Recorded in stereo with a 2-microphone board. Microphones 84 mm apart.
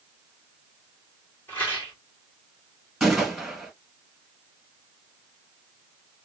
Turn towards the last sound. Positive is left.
turn(degrees=0)  # may be behind; listen again after turning